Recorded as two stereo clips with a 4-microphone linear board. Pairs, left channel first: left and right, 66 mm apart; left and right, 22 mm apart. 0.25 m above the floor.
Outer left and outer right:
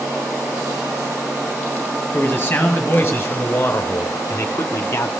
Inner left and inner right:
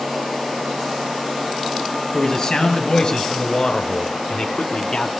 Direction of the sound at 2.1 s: 25° left (ahead or behind).